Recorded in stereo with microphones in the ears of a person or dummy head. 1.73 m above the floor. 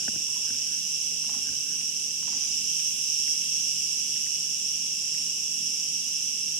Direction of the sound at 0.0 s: 75° right (ahead or behind).